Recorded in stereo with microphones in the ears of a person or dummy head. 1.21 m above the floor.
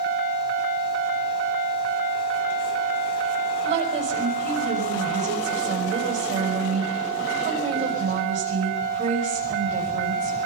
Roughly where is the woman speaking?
Right.